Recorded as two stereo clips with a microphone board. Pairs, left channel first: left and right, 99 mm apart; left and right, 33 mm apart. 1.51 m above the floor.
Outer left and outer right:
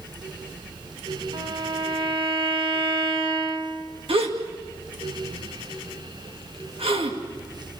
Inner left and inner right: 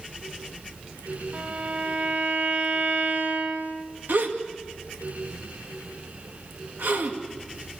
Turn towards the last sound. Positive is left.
turn(degrees=-80)